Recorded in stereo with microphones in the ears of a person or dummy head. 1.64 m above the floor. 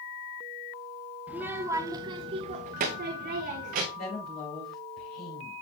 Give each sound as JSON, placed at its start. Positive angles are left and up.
{"t": 1.3, "sound": "a child speaking", "side_deg": -10, "distance_m": 1.1}
{"t": 3.9, "sound": "a woman speaking", "side_deg": 40, "distance_m": 6.0}